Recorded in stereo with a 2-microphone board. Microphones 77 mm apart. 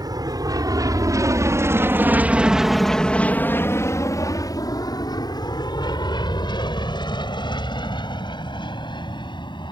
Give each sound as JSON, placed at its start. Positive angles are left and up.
{"t": 0.0, "sound": "an aircraft", "side_deg": -60}